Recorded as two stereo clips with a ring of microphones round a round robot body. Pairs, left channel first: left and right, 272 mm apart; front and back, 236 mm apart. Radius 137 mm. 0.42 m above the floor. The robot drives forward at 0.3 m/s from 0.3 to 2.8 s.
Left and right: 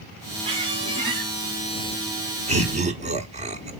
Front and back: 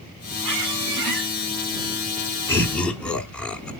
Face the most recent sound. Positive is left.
turn(degrees=-80)